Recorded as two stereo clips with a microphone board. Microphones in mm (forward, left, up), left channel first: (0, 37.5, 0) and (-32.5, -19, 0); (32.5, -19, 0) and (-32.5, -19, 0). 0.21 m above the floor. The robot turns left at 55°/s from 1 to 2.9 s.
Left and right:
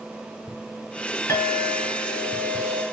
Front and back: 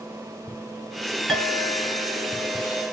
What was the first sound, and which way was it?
A clink, 80° left.